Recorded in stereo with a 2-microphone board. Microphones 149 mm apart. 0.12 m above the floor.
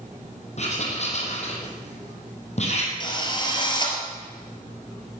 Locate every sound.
0.6 s writing: 50° left (ahead or behind), 3 m
3.0 s a drill: 30° left (ahead or behind), 3 m